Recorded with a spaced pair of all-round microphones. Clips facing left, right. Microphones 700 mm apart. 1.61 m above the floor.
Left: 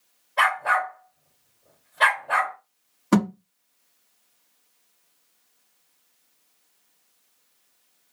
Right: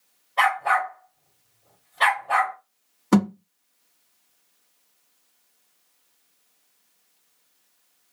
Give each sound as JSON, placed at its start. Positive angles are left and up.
{"t": 0.4, "sound": "a dog barking", "side_deg": 25, "distance_m": 1.6}
{"t": 3.1, "sound": "a thud", "side_deg": 10, "distance_m": 1.2}